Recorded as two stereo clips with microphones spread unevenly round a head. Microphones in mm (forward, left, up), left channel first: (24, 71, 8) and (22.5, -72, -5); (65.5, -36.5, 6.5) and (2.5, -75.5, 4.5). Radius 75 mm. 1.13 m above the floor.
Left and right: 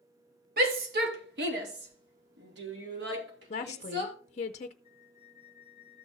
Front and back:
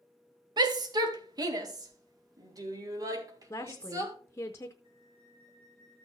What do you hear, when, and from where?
0.6 s a shout: 125° right, 1.7 m; by 4.2 s 110° right, 3.5 m
3.5 s a woman speaking: 80° left, 0.5 m
4.8 s a flute: 170° right, 2.5 m